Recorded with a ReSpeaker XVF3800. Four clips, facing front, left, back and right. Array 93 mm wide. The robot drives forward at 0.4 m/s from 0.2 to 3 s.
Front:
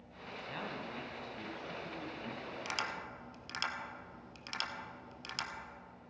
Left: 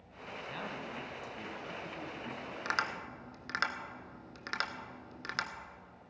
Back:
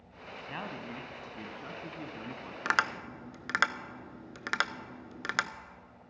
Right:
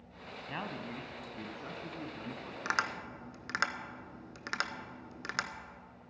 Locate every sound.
0.5 s a man speaking: 130° right, 1.2 m; by 2.5 s 155° right, 1.7 m
2.6 s tapping: 170° right, 0.6 m; by 5.5 s 175° right, 0.7 m